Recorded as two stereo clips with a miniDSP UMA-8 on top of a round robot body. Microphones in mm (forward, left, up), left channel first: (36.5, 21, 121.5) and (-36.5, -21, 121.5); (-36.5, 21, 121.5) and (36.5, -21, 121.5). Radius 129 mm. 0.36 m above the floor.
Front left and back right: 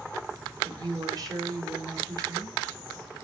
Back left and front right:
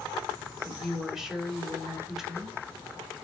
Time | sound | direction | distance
0.6 | a woman speaking | 110° right | 2.5 m